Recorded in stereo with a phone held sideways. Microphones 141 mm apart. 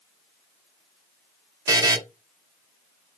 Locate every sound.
1.7 s a buzzer: 25° right (ahead or behind), 0.6 m